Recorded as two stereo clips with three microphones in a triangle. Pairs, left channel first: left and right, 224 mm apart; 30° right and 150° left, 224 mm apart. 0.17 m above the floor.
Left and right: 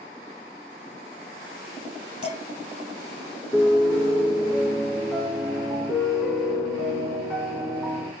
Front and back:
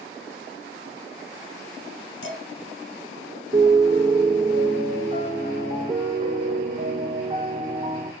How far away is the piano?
About 0.7 m.